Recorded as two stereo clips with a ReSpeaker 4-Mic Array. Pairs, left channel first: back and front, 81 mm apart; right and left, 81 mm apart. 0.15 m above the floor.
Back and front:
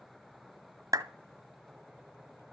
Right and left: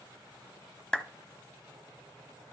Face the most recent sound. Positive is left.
turn(degrees=-15)